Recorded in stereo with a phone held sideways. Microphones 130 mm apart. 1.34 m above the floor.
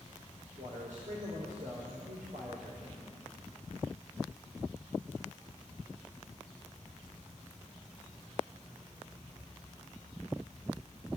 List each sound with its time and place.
0.6 s a man speaking: 85° right, 4.5 m